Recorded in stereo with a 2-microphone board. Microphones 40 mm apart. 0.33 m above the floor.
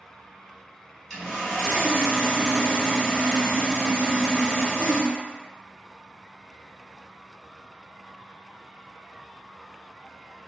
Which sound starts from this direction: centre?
Sawing, at 1.1 s.